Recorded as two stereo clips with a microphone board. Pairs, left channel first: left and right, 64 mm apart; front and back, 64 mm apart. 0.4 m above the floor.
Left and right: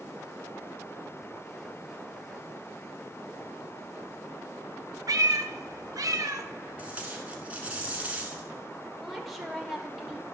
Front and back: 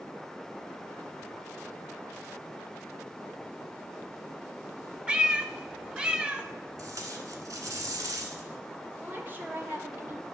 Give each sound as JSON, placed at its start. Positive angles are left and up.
{"t": 5.1, "sound": "a cat meowing", "azimuth_deg": -105, "distance_m": 0.6}
{"t": 6.8, "sound": "tape being pulled", "azimuth_deg": -160, "distance_m": 1.3}
{"t": 9.0, "sound": "a woman speaking", "azimuth_deg": 180, "distance_m": 1.3}